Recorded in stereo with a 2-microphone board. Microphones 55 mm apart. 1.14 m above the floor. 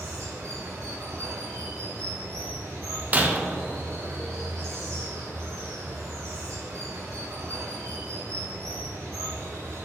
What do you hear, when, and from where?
0.0 s running water: 85° right, 1.7 m
3.1 s breaking glass: 35° right (ahead or behind), 0.7 m